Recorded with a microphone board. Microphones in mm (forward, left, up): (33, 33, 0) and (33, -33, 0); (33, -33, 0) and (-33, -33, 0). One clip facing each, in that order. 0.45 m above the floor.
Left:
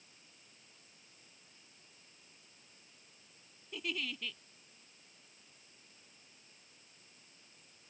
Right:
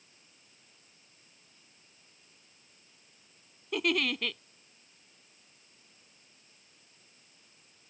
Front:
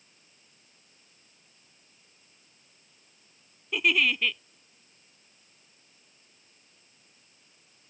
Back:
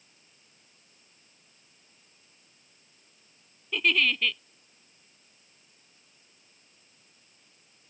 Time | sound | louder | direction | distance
3.7 | a giggle | right 11 dB, even | 80° right | ?